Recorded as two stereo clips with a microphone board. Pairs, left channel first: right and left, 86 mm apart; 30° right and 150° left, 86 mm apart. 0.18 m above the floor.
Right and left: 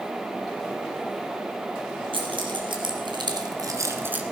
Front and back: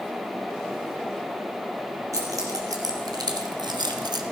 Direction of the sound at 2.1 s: 100° left.